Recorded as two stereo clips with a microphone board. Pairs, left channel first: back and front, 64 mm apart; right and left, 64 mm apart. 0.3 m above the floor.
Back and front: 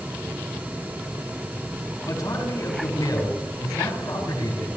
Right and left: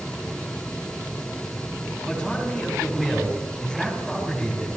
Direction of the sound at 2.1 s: 175° left.